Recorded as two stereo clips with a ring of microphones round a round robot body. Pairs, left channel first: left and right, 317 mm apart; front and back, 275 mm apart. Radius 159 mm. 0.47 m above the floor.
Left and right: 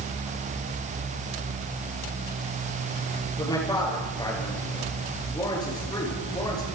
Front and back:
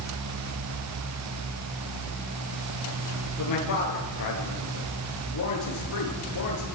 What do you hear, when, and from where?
3.4 s a man speaking: 10° left, 9 m